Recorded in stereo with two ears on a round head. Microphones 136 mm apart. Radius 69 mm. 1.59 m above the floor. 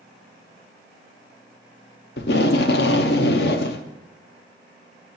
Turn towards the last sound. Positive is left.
turn(degrees=70)  # may be behind; listen again after turning